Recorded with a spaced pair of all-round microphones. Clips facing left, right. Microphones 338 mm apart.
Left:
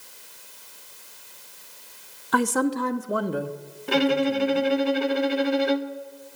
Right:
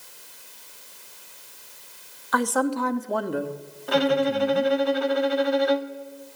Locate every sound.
2.3 s a man speaking: 45° left (ahead or behind), 0.9 m; by 4.7 s 25° right (ahead or behind), 1.6 m
3.9 s a violin: 40° left (ahead or behind), 0.7 m